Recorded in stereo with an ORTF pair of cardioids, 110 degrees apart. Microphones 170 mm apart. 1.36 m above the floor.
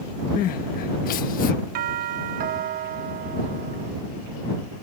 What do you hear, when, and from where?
0.4 s crying: 65° left
1.8 s a doorbell: 65° right